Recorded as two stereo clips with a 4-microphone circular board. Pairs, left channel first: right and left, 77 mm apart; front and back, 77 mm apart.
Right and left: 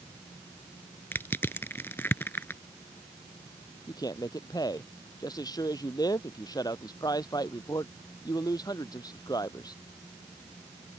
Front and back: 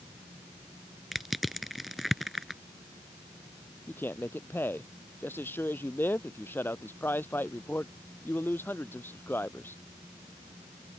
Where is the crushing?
90° right.